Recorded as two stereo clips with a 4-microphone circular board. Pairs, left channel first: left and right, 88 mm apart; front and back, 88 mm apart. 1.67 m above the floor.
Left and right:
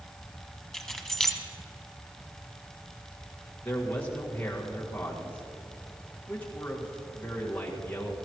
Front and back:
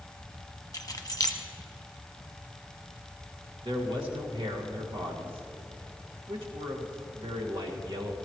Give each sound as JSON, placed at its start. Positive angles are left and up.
{"t": 0.7, "sound": "keys jangling", "azimuth_deg": 0, "distance_m": 1.1}
{"t": 3.6, "sound": "a man speaking", "azimuth_deg": 160, "distance_m": 2.0}